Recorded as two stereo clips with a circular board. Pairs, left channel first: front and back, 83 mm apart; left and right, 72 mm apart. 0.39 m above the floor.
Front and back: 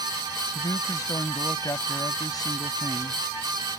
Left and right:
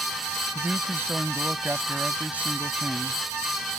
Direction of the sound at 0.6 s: 35° right.